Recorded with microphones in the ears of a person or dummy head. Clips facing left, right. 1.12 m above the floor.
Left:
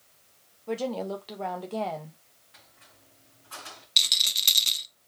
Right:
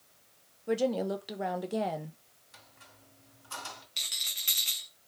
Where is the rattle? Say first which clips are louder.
Left 8 dB; 55° left (ahead or behind), 0.5 m.